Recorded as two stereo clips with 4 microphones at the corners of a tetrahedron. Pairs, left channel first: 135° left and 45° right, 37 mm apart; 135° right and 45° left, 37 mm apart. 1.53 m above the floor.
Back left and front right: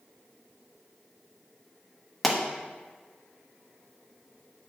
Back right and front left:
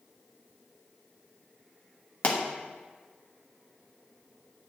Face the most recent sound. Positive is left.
turn(degrees=-135)